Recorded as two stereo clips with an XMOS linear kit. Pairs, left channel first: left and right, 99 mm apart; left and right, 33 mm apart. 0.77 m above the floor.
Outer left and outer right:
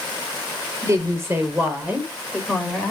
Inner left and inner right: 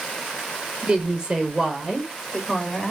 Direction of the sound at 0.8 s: 30° right (ahead or behind).